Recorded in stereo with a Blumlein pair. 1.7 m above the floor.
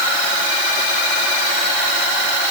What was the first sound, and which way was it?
Only background noise.